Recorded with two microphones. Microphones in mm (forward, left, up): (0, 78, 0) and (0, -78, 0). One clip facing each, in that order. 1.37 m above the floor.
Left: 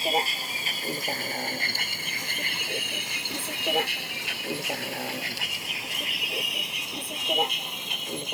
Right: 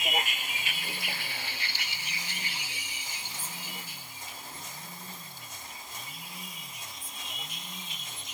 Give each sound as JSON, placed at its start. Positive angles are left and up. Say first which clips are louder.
{"t": 0.0, "sound": "a vehicle", "louder": "left 6 dB", "side_deg": 35}